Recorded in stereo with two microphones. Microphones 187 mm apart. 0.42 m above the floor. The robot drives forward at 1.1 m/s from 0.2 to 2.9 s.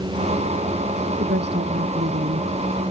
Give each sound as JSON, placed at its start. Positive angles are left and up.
{"t": 1.2, "sound": "a woman speaking", "side_deg": -70}